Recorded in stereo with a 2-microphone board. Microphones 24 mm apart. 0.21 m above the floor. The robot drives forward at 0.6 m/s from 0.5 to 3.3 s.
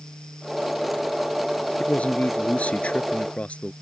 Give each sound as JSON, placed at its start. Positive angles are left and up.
{"t": 1.8, "sound": "a man speaking", "side_deg": 65}